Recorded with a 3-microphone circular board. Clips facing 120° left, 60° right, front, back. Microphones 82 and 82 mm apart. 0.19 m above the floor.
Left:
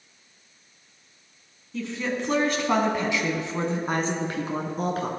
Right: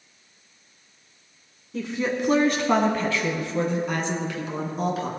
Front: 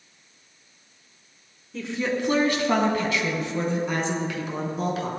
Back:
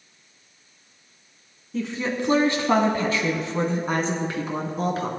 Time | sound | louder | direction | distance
1.7 | a woman speaking | right 3 dB, even | 115° right | 1.4 m